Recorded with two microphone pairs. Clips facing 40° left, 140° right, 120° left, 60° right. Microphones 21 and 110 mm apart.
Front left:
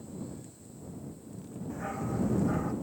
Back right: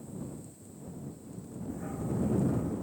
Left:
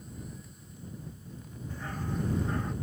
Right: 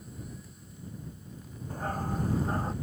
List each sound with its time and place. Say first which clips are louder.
1.7 s a dog barking: front left 1 dB, right 3 dB; 15° right; by 2.7 s 5° right